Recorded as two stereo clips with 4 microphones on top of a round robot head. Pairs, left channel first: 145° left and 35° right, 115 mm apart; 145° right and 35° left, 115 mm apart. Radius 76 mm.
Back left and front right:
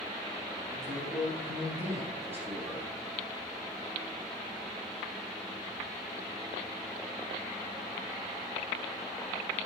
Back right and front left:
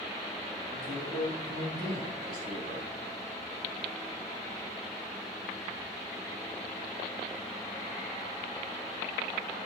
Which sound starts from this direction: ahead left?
A man speaking, at 0.7 s.